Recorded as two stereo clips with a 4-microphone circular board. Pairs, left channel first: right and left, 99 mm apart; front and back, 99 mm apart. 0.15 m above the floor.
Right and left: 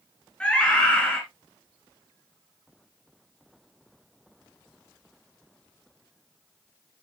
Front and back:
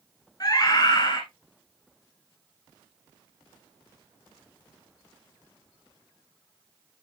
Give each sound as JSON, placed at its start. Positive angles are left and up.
{"t": 0.4, "sound": "a scream", "azimuth_deg": -15, "distance_m": 1.8}